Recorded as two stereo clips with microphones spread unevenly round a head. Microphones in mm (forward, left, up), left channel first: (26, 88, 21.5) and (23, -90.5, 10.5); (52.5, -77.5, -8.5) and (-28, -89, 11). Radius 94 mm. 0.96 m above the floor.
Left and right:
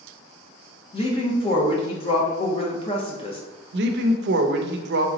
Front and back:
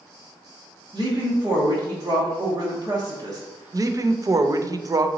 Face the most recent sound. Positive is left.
turn(degrees=-120)